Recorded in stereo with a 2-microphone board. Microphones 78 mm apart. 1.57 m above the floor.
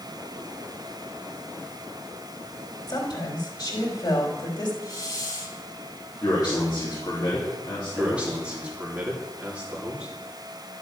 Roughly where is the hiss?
Left.